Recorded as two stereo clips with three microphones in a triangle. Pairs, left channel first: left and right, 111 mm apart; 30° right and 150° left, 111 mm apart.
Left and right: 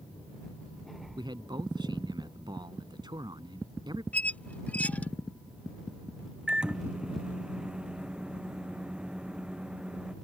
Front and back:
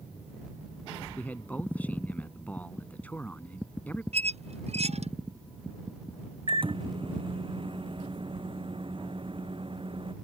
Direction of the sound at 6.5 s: 170° right.